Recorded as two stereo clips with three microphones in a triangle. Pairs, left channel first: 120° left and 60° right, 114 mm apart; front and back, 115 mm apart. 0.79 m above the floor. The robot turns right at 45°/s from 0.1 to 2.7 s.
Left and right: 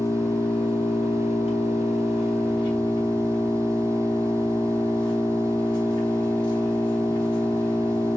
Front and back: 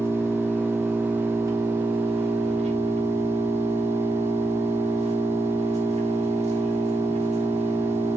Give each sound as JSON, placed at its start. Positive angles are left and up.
{"t": 0.0, "sound": "an engine running", "azimuth_deg": 55, "distance_m": 1.2}